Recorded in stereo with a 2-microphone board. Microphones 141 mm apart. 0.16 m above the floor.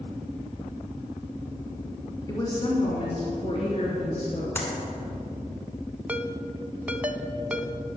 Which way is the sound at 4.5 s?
15° left (ahead or behind).